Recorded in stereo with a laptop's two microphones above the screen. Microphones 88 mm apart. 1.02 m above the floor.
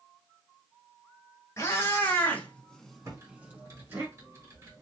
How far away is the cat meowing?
About 1.4 m.